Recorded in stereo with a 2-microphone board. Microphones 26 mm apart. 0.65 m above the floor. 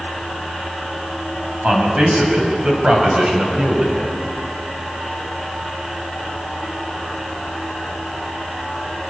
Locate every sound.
1.6 s a man speaking: 45° right (ahead or behind), 5.5 m; by 4.1 s 35° right (ahead or behind), 4 m